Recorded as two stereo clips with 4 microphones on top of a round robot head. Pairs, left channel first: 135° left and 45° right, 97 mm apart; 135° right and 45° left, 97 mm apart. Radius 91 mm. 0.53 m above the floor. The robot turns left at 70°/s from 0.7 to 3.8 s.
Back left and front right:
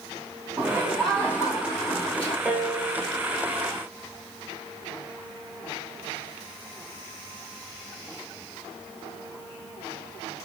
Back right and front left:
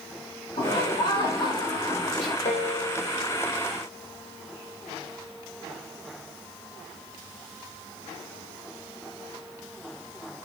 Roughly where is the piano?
Behind right.